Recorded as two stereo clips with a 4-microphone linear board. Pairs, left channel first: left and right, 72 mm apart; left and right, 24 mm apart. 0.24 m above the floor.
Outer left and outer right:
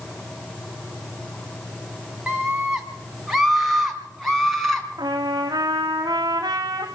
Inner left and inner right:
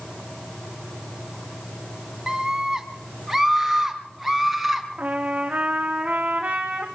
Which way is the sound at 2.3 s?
10° right (ahead or behind).